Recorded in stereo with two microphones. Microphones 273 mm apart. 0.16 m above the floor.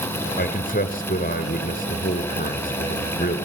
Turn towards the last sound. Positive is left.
turn(degrees=35)  # may be behind; listen again after turning